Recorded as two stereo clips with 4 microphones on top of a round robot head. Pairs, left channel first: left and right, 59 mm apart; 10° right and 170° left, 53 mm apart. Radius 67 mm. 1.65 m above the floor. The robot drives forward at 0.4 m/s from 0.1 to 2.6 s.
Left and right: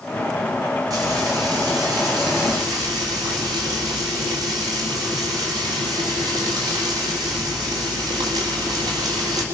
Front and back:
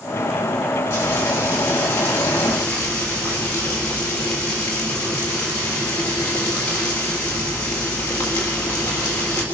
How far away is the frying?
About 4 m.